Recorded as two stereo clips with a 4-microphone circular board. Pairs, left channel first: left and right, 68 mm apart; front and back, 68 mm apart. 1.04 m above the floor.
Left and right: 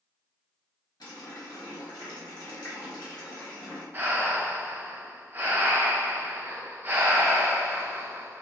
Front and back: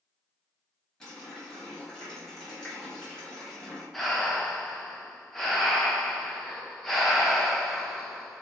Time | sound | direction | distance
1.0 | a running tap | 85° left | 1.2 m
3.9 | breathing | 80° right | 0.5 m